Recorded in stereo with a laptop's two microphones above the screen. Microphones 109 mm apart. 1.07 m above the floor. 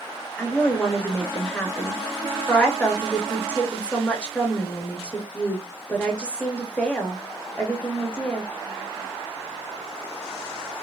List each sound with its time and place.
0.4 s a woman speaking: 10° left (ahead or behind), 0.8 m